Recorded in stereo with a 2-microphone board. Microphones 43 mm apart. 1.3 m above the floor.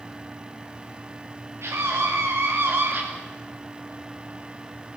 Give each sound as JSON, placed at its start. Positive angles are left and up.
{"t": 1.6, "sound": "a scream", "side_deg": -80, "distance_m": 2.5}